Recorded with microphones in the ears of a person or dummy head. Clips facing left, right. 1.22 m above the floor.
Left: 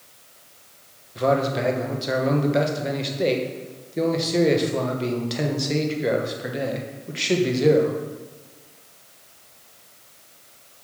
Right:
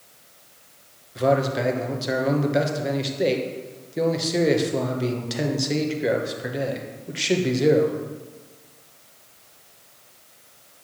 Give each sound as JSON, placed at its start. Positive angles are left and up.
{"t": 1.1, "sound": "a man speaking", "side_deg": -5, "distance_m": 1.2}